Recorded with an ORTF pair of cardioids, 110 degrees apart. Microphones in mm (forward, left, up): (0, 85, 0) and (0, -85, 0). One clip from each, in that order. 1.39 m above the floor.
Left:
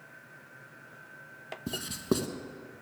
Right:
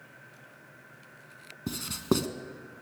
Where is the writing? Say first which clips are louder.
Right 2 dB; 25° right, 1.1 m.